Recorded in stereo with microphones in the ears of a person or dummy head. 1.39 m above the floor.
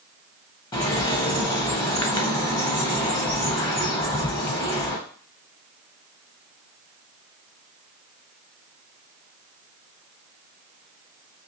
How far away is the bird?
About 0.7 m.